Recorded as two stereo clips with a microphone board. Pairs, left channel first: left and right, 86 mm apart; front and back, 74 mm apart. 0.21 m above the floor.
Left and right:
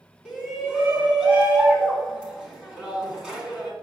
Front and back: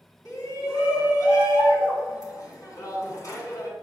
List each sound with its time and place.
0.2 s a shout: 10° right, 2.5 m